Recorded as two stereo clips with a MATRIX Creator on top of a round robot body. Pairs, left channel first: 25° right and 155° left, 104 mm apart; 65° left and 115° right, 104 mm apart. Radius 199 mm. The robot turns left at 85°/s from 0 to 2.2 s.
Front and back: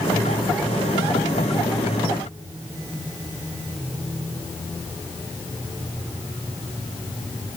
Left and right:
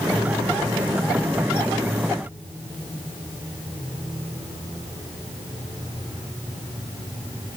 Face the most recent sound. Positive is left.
No sound to turn to.